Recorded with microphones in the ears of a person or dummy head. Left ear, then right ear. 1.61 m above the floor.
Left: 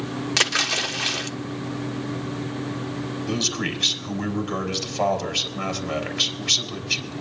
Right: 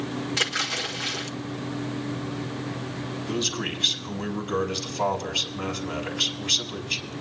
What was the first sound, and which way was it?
A splash, 70° left (ahead or behind).